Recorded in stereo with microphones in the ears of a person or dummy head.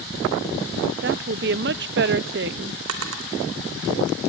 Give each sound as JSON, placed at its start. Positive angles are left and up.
{"t": 1.0, "sound": "a woman speaking", "side_deg": -50, "distance_m": 0.7}
{"t": 2.9, "sound": "a drawer", "side_deg": -80, "distance_m": 3.0}